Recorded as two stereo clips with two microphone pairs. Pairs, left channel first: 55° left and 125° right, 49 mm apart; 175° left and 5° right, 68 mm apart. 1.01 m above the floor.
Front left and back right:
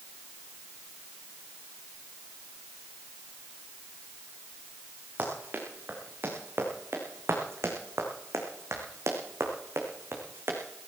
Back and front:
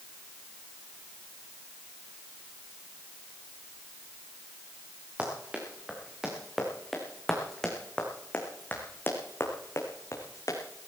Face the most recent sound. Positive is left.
turn(degrees=-155)